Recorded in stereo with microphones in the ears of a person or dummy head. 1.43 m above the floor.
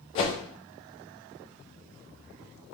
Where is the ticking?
No ticking in this recording.